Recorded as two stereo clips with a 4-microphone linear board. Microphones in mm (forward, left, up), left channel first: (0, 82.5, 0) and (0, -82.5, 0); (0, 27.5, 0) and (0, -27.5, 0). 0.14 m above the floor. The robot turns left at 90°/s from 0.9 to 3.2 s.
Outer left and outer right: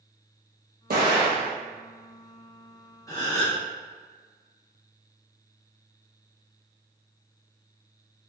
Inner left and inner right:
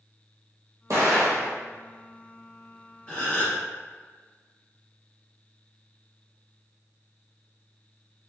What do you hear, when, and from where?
0.9 s an explosion: 75° right, 1.1 m; by 1.5 s 135° right, 1.1 m
3.1 s a gasp: 20° left (ahead or behind), 1.3 m; by 3.6 s 25° left (ahead or behind), 1.3 m